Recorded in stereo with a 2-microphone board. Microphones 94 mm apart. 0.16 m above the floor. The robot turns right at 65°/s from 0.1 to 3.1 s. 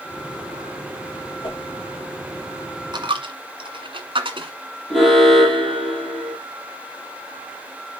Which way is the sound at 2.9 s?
50° right (ahead or behind).